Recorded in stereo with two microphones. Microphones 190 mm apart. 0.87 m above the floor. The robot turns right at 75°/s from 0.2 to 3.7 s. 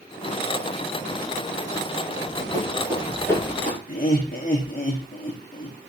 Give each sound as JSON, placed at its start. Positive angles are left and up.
{"t": 2.2, "sound": "running footsteps", "side_deg": -75, "distance_m": 7.0}
{"t": 3.9, "sound": "laughter", "side_deg": 50, "distance_m": 1.2}